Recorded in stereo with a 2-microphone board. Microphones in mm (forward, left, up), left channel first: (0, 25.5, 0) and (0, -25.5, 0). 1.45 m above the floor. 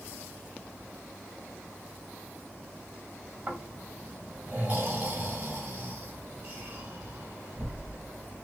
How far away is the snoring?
About 1.8 m.